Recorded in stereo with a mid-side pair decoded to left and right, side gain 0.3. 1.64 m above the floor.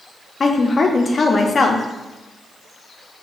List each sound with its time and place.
0.4 s a woman speaking: 55° left, 0.6 m